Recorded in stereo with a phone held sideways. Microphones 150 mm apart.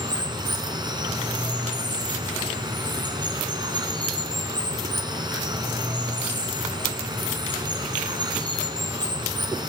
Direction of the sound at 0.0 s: 30° right (ahead or behind).